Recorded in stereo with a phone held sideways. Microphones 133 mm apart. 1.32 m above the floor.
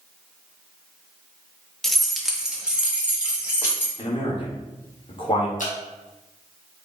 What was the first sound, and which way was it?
Keys jangling, 5° left (ahead or behind).